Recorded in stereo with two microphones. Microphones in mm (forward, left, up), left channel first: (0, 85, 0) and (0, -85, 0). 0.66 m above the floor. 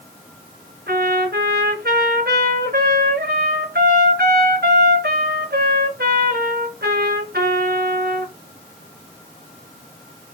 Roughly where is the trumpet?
Right.